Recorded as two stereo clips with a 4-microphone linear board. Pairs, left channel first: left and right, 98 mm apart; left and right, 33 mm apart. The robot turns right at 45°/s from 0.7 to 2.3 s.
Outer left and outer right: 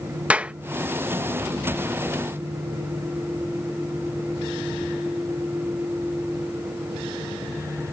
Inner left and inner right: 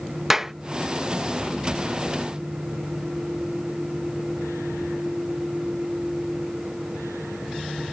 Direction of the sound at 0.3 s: 15° right (ahead or behind).